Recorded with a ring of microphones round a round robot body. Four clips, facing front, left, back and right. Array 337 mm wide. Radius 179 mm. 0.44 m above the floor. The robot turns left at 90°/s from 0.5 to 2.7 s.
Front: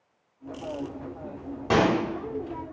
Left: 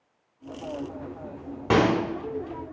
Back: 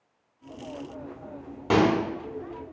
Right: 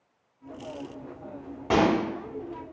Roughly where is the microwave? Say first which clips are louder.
Left 1 dB, back 1 dB; left.